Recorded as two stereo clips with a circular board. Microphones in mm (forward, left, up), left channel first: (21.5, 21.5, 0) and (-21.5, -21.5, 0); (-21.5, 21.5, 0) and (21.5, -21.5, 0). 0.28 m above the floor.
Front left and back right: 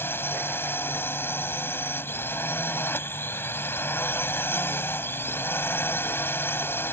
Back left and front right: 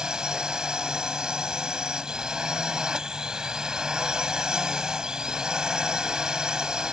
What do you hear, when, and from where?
0.0 s a drone: 30° left